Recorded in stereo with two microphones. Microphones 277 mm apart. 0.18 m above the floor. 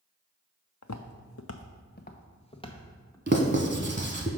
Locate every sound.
0.8 s footsteps: 80° left, 0.7 m; by 3.2 s 10° left (ahead or behind), 1.4 m
3.3 s writing: 40° right (ahead or behind), 0.8 m